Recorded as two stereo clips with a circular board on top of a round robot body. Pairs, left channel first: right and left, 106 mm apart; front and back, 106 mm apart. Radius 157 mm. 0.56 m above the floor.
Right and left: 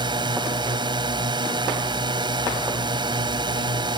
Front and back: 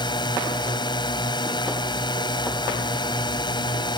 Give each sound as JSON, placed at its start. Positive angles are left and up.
{"t": 0.0, "sound": "a drone", "azimuth_deg": 45}